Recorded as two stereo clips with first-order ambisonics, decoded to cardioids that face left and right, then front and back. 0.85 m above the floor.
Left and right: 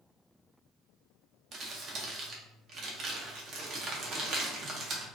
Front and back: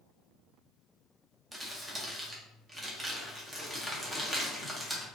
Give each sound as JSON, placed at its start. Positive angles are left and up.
{"t": 1.5, "sound": "crumpling", "azimuth_deg": -110, "distance_m": 0.6}